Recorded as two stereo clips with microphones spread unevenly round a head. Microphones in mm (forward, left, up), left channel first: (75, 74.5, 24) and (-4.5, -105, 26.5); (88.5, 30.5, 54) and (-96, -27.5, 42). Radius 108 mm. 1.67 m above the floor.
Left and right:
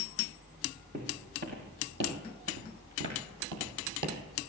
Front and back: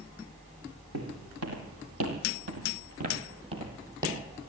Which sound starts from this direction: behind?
Footsteps, at 0.9 s.